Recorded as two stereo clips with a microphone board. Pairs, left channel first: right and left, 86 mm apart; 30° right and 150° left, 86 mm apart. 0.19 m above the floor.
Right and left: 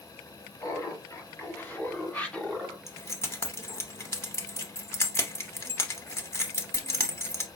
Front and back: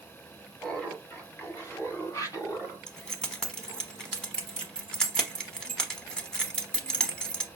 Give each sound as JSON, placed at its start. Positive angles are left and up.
{"t": 0.6, "sound": "laughter", "azimuth_deg": -100, "distance_m": 1.5}
{"t": 2.9, "sound": "keys jangling", "azimuth_deg": -105, "distance_m": 0.9}